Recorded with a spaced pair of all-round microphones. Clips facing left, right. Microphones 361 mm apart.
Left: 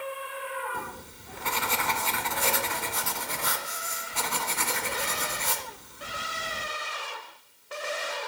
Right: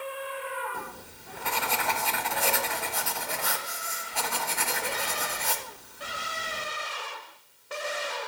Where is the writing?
10° left (ahead or behind), 1.0 m.